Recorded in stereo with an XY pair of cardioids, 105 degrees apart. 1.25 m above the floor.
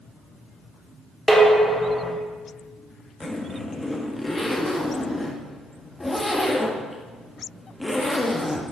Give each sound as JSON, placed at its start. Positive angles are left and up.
{"t": 1.3, "sound": "dishes clattering", "azimuth_deg": -5, "distance_m": 2.5}
{"t": 3.2, "sound": "a zipper", "azimuth_deg": 15, "distance_m": 1.5}